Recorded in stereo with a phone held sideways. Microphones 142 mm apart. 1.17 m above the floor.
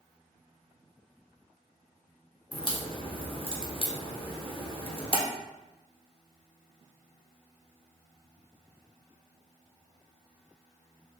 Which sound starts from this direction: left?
A crack, at 2.5 s.